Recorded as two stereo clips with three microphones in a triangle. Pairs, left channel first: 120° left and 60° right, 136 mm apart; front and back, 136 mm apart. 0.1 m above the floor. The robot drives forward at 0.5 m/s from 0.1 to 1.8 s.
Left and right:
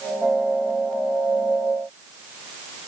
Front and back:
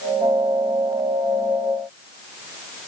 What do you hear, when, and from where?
Only background noise.